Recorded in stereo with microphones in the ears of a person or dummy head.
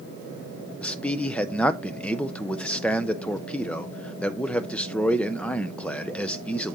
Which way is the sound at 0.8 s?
5° left (ahead or behind).